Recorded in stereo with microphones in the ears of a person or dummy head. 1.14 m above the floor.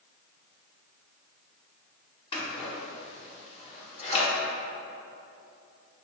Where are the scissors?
30° left (ahead or behind), 1.3 m.